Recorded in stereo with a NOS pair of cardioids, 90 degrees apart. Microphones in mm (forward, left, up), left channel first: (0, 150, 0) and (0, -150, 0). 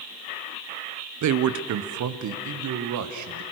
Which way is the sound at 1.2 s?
65° right.